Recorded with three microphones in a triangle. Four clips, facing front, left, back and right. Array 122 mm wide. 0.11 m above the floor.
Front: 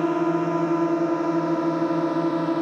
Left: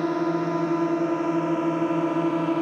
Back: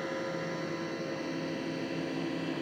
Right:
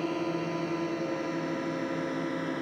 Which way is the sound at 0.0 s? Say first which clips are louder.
Left 7 dB, front 14 dB; 20° left.